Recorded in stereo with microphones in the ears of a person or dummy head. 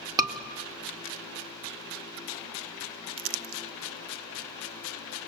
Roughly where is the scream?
Right.